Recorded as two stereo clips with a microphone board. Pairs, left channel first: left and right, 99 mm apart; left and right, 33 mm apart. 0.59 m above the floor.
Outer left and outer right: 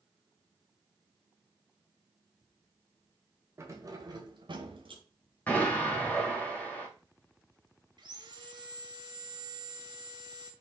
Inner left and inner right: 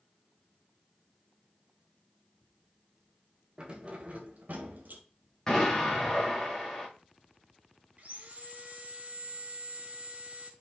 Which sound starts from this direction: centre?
An explosion, at 5.5 s.